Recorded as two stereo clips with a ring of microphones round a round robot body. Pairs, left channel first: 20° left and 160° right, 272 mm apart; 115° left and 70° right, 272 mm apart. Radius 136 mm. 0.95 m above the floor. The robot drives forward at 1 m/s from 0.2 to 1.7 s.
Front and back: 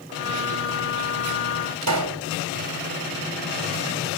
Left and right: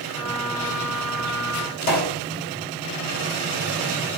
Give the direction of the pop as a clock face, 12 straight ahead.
6 o'clock.